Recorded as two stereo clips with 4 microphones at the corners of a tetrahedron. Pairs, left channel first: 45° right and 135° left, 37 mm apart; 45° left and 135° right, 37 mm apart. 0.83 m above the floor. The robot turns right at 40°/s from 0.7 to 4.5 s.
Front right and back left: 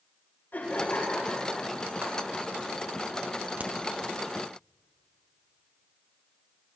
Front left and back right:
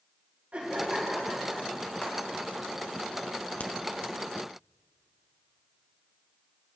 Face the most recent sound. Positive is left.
turn(degrees=130)